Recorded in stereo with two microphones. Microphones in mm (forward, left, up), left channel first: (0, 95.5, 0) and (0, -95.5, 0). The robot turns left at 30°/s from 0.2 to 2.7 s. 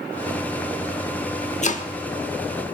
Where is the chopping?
40° left (ahead or behind), 1.0 m; by 1.9 s 45° left (ahead or behind), 1.0 m.